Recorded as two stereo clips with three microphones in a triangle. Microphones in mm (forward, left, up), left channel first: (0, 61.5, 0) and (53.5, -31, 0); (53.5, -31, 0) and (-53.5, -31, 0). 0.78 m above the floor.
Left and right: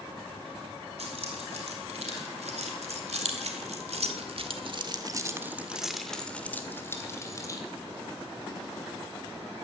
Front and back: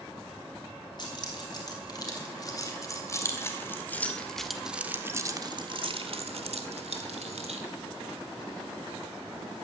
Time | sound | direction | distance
1.0 | keys jangling | 45° right | 4.5 m